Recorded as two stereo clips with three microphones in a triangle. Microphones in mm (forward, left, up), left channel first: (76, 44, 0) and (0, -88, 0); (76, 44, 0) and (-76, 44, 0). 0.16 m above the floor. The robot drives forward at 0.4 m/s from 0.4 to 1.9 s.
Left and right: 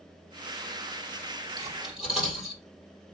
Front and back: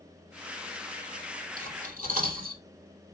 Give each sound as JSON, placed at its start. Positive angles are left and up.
{"t": 1.6, "sound": "cutlery clinking", "azimuth_deg": 155, "distance_m": 3.0}